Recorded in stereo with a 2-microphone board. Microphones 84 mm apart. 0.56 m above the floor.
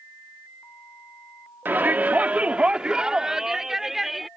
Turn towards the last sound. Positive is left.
turn(degrees=0)  # may be behind; listen again after turning